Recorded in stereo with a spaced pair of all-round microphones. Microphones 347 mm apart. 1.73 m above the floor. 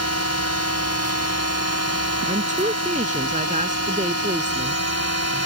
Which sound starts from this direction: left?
A drone, at 0.0 s.